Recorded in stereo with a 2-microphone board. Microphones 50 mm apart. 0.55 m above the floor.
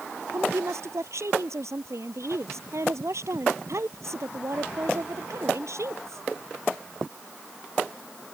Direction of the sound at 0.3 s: 75° right (ahead or behind).